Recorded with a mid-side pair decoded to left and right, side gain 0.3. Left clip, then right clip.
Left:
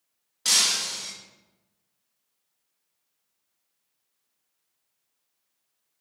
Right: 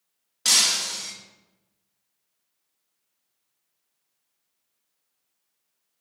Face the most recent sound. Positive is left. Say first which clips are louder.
# right 2 dB
turn(degrees=-45)